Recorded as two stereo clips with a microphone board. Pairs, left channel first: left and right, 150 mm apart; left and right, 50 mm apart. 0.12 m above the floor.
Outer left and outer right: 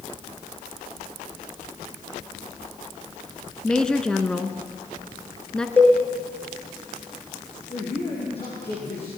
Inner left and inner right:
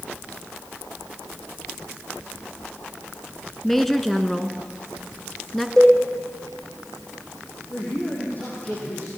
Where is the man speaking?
40° left (ahead or behind), 6 m.